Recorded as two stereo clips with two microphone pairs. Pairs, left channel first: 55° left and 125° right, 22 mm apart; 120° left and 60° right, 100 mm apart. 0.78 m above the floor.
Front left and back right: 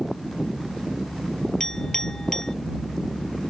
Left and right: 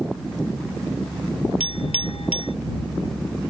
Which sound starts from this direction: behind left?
A clink, at 1.6 s.